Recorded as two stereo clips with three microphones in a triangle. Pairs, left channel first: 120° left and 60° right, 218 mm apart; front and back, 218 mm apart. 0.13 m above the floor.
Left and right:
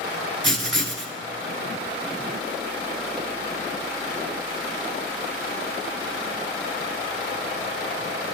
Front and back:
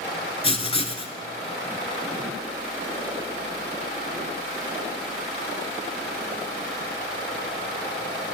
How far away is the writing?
About 0.6 m.